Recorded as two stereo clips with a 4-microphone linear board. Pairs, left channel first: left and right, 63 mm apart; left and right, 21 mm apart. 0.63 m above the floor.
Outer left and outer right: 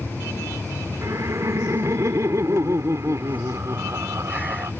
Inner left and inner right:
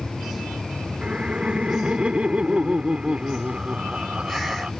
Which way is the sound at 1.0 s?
55° right (ahead or behind).